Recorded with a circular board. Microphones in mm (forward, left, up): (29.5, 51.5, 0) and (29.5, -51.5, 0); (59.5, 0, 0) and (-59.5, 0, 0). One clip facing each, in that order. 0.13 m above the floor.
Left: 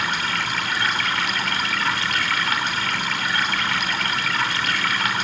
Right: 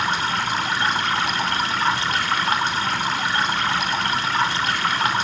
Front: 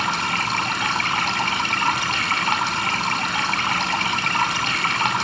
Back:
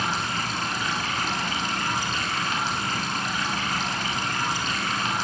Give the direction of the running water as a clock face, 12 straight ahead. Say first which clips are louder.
Right 3 dB, front 4 dB; 1 o'clock.